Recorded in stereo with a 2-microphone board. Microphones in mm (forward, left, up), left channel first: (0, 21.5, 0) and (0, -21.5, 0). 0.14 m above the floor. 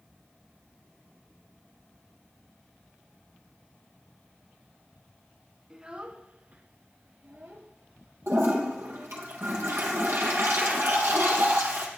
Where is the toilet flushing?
65° right (ahead or behind), 3 m.